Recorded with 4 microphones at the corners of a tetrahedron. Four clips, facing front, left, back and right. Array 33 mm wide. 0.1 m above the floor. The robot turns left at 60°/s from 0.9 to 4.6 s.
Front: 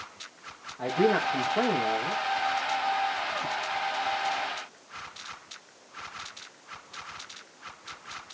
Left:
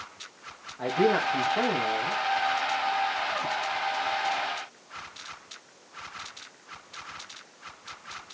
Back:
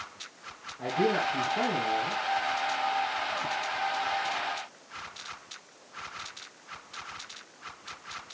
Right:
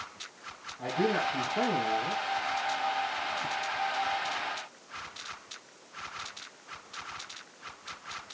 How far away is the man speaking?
About 4.5 m.